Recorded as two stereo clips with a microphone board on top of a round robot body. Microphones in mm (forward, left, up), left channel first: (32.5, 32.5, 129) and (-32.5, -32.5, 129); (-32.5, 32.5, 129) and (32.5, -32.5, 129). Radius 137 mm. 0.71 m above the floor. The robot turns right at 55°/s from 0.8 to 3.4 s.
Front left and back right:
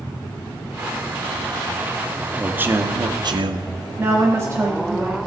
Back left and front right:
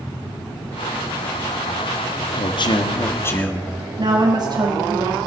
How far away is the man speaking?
About 1.4 m.